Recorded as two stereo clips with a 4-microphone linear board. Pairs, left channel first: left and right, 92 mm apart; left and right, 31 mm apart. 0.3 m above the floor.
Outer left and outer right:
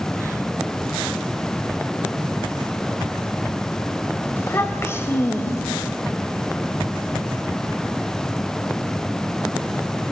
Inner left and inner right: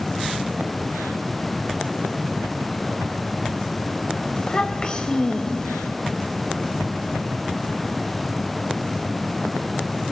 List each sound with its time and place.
4.4 s a child speaking: 30° left (ahead or behind), 1.1 m